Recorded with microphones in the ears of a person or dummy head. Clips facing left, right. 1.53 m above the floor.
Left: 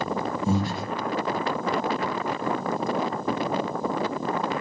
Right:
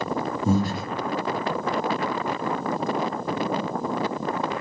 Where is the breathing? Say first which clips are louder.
Right 4 dB; 40° right (ahead or behind), 0.7 m.